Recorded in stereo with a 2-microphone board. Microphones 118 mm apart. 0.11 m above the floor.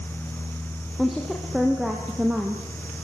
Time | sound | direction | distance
1.0 | a woman speaking | centre (ahead or behind) | 4 m